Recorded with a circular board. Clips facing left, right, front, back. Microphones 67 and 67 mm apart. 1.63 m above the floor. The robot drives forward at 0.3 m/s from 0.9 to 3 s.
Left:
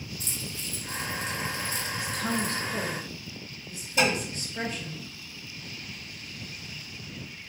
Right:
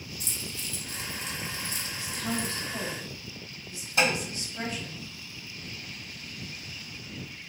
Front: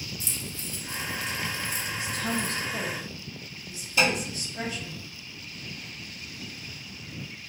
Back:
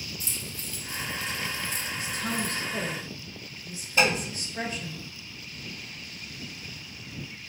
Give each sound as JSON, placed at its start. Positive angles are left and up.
{"t": 0.2, "sound": "keys jangling", "azimuth_deg": 55, "distance_m": 0.7}
{"t": 2.0, "sound": "a woman speaking", "azimuth_deg": 120, "distance_m": 1.0}
{"t": 4.0, "sound": "tapping", "azimuth_deg": -125, "distance_m": 1.6}